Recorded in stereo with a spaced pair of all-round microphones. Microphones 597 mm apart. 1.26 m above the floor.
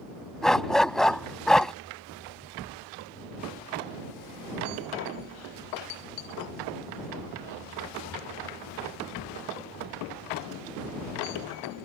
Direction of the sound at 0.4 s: Centre (ahead or behind).